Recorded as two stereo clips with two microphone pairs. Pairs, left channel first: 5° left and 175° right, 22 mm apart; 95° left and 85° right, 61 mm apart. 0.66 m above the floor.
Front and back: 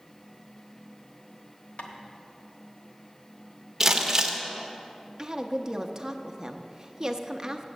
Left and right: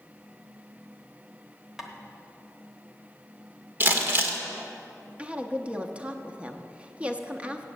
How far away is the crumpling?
About 1.1 m.